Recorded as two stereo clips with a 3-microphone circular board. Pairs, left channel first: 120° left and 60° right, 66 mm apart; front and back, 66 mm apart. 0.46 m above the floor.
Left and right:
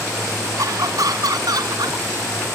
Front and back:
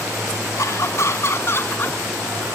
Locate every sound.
0.6 s laughter: 35° right; by 2.6 s 60° right